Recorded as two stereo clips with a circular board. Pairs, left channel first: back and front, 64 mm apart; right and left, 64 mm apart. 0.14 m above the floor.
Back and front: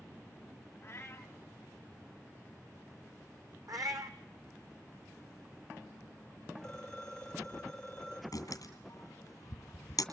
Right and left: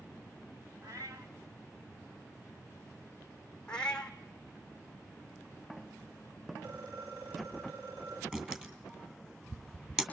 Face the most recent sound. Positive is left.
turn(degrees=165)